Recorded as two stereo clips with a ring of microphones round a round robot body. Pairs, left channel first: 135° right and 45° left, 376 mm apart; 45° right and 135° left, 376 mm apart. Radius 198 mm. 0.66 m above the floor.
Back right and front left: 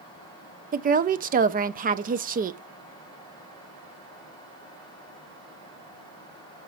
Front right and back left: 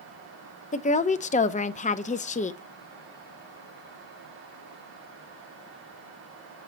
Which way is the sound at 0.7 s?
5° left.